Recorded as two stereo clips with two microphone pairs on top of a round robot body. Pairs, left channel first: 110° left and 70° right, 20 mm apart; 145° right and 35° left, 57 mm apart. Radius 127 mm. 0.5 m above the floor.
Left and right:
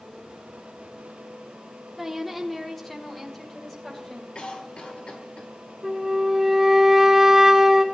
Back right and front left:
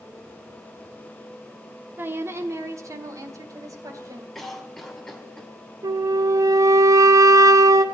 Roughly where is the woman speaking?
Ahead.